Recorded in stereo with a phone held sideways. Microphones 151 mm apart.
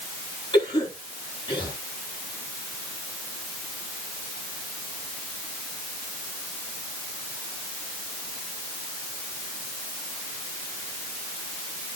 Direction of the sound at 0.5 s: 35° left (ahead or behind).